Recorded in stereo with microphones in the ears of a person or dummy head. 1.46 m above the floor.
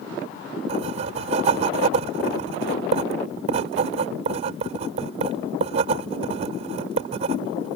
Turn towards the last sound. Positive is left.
turn(degrees=-40)  # may be behind; listen again after turning